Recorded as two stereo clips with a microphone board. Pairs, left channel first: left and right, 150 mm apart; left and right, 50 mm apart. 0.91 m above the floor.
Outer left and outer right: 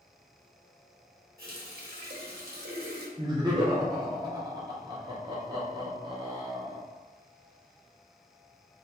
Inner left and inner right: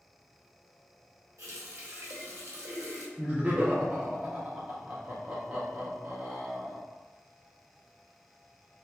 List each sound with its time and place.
1.4 s a running tap: 85° right, 0.8 m
3.2 s laughter: 25° right (ahead or behind), 0.6 m